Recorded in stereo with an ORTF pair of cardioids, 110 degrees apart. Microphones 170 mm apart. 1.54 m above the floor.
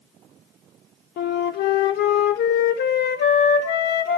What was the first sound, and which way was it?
A flute, 70° left.